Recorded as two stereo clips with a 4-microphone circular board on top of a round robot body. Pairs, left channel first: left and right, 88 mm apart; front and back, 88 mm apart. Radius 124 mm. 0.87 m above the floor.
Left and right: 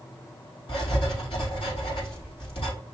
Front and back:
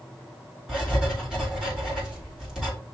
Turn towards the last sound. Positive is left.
turn(degrees=95)